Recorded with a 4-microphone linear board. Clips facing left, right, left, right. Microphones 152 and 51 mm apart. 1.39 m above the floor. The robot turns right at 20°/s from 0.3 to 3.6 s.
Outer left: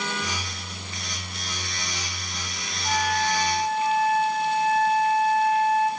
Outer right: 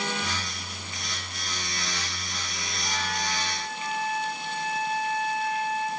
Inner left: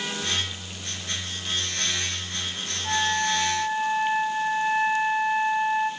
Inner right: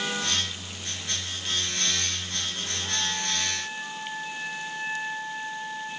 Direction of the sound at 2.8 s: 35° left (ahead or behind).